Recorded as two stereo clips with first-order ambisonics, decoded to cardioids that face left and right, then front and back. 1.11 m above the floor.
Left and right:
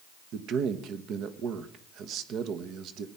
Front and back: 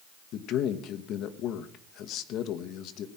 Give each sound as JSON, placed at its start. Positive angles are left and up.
{"t": 0.3, "sound": "a man speaking", "azimuth_deg": -45, "distance_m": 1.2}